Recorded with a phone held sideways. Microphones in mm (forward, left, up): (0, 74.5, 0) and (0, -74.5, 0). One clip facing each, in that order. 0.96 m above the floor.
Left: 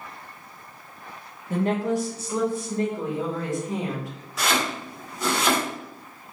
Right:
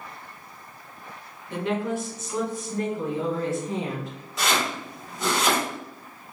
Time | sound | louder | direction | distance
1.5 | a woman speaking | left 3 dB | 45° left (ahead or behind) | 0.8 m
4.4 | chopping | left 1 dB | centre (ahead or behind) | 1.8 m